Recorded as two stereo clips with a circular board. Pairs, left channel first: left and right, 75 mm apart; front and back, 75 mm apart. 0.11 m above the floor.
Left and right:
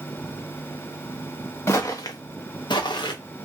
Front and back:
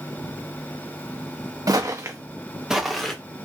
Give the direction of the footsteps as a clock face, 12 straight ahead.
7 o'clock.